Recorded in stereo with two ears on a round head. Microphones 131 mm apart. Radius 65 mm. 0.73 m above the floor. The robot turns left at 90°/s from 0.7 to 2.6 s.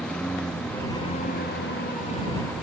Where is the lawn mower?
5° left (ahead or behind).